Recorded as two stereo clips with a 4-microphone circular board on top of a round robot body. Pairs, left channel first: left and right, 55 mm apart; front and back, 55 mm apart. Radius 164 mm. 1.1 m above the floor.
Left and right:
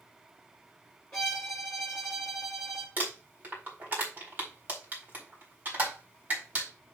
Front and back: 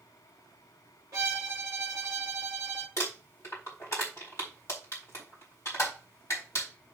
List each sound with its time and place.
1.1 s a violin: 175° left, 0.8 m
3.0 s crumpling: 35° right, 3.5 m